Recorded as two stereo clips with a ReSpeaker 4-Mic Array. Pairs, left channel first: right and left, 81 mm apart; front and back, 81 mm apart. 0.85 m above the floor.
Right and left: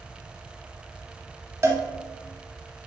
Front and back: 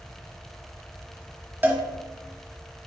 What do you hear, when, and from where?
1.6 s a cowbell: 125° left, 1.1 m